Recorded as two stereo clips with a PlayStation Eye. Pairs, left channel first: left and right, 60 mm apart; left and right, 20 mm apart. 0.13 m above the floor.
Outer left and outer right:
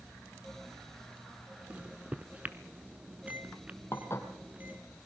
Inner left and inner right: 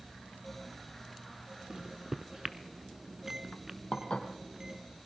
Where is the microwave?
25° right (ahead or behind), 0.9 m.